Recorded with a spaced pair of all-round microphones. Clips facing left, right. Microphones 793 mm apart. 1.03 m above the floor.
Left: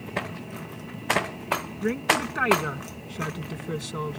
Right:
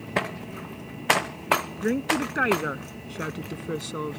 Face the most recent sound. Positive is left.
turn(degrees=30)  # may be behind; listen again after turning